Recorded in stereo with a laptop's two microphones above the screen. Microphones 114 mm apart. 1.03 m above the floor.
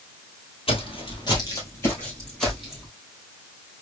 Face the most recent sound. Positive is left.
turn(degrees=-5)  # may be behind; listen again after turning